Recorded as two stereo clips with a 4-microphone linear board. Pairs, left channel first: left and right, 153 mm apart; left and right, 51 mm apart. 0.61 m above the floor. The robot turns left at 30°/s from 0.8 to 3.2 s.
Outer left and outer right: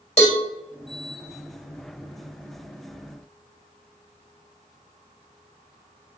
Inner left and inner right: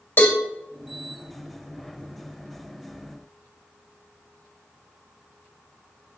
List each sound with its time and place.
0.2 s a cowbell: 45° left (ahead or behind), 2.5 m